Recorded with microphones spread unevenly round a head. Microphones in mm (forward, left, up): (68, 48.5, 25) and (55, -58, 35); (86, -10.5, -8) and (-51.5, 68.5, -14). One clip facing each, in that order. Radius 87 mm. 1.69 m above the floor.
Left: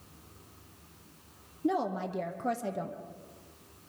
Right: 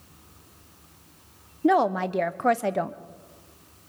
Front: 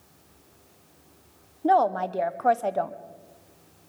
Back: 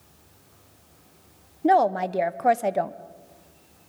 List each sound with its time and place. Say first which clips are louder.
1.6 s a woman speaking: right 9 dB, back 2 dB; 135° right, 0.7 m